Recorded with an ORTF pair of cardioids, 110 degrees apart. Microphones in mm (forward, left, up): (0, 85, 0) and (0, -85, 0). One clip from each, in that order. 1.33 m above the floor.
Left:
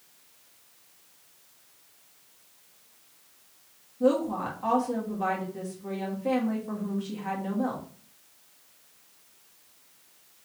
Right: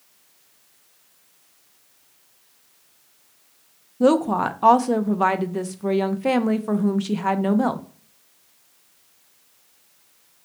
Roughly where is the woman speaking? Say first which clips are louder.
Right 7 dB; ahead right.